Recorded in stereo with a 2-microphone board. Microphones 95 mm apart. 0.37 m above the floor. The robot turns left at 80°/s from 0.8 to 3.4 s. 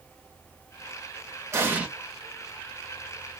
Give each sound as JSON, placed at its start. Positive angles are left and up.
{"t": 1.5, "sound": "an explosion", "side_deg": -30, "distance_m": 1.7}